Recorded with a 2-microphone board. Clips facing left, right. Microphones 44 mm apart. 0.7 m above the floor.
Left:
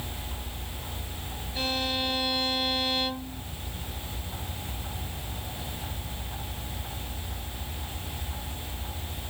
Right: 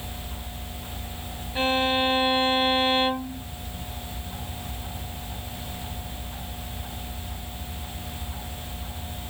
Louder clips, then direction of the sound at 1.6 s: Right 7 dB; 35° right (ahead or behind).